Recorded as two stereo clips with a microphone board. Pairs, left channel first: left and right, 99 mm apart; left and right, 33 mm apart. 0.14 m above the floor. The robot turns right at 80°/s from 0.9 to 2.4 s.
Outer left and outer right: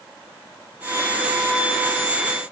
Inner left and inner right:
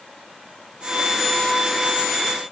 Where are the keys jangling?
No keys jangling in this recording.